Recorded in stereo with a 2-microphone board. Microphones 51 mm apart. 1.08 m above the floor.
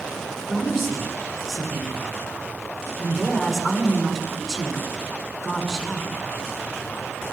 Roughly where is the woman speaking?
Centre.